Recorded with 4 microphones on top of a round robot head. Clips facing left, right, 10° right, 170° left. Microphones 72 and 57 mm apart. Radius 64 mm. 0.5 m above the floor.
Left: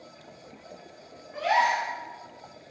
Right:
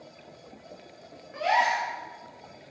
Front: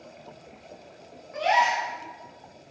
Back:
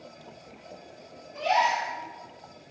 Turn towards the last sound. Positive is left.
turn(degrees=-5)